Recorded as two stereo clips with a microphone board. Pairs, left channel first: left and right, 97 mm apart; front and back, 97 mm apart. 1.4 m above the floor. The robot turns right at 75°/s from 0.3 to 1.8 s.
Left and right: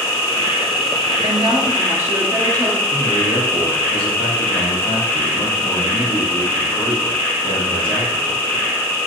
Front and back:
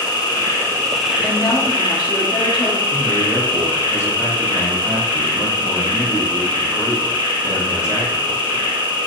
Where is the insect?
40° left, 0.9 m; by 9.1 s 150° left, 0.9 m.